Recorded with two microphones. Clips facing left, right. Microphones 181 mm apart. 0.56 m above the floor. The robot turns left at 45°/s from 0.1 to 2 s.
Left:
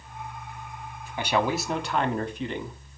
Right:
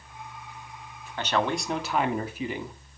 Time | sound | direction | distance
1.2 | a man speaking | 25° left | 1.3 m